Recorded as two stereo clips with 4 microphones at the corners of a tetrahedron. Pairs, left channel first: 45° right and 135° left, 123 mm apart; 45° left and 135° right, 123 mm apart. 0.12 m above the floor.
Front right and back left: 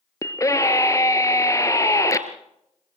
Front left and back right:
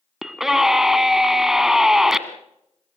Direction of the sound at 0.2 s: 50° right.